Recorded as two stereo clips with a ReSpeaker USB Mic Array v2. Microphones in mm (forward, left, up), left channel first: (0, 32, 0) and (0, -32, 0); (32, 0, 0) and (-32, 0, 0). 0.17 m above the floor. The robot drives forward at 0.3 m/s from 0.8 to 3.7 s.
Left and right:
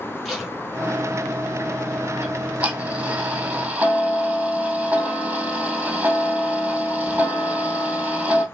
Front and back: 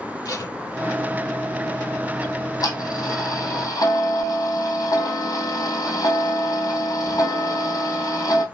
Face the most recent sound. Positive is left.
turn(degrees=-20)